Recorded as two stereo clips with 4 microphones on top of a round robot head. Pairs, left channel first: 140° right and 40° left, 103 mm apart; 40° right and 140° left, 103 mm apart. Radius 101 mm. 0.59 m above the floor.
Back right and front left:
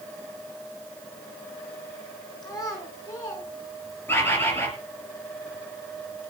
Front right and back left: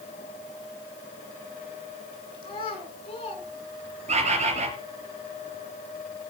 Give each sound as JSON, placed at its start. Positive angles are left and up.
{"t": 2.4, "sound": "a child speaking", "azimuth_deg": -85, "distance_m": 7.5}
{"t": 4.1, "sound": "a bird", "azimuth_deg": 150, "distance_m": 4.0}